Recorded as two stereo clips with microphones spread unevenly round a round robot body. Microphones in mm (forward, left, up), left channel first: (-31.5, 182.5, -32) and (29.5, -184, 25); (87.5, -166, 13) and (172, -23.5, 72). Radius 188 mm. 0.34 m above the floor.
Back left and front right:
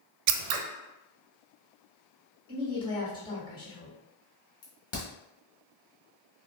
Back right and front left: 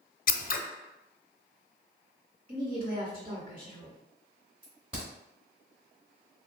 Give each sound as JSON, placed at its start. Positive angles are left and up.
{"t": 0.3, "sound": "scissors", "azimuth_deg": -90, "distance_m": 0.5}
{"t": 2.5, "sound": "a woman speaking", "azimuth_deg": 45, "distance_m": 1.6}
{"t": 4.6, "sound": "a crack", "azimuth_deg": 135, "distance_m": 1.2}